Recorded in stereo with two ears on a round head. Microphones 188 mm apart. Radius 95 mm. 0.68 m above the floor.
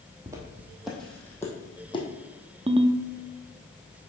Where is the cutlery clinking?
No cutlery clinking in this recording.